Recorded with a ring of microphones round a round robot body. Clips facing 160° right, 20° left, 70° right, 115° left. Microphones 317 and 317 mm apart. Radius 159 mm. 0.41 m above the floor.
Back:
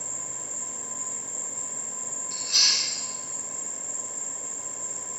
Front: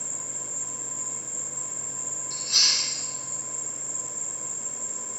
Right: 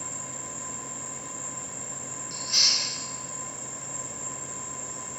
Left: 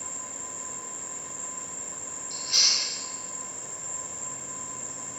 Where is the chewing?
65° left, 2.5 m.